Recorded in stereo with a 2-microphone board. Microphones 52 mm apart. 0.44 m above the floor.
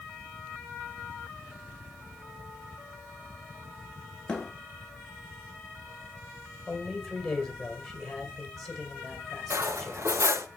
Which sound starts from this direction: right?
Cutlery clinking, at 9.5 s.